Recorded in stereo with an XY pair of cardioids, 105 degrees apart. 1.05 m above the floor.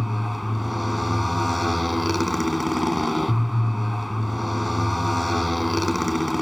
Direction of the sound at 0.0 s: 10° left.